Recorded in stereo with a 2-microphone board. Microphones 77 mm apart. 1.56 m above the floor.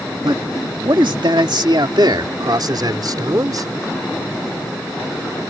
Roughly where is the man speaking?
Right.